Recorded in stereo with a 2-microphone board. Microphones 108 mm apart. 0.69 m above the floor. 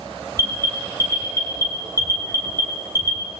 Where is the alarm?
25° left (ahead or behind), 4.5 m.